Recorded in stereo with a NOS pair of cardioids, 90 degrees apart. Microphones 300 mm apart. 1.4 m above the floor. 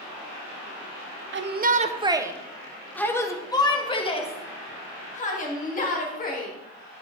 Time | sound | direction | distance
1.3 | a shout | 40° right | 0.8 m